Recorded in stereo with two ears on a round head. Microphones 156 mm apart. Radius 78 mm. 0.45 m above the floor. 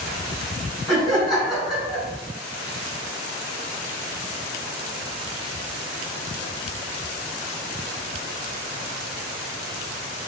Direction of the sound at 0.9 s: Centre (ahead or behind).